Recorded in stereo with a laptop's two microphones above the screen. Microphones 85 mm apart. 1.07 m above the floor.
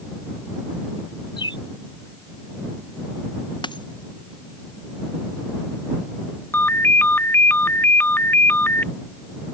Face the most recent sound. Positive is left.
turn(degrees=25)  # may be behind; listen again after turning